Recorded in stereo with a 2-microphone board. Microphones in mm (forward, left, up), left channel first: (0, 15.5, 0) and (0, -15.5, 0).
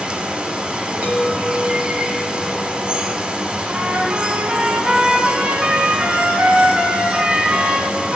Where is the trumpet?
60° right (ahead or behind), 1.6 m.